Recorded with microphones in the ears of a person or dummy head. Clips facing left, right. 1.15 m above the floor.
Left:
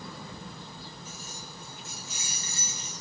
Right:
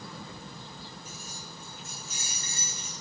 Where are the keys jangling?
50° right (ahead or behind), 2.5 m.